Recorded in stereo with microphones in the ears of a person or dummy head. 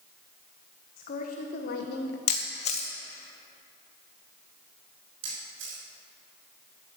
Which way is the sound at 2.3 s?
40° left (ahead or behind).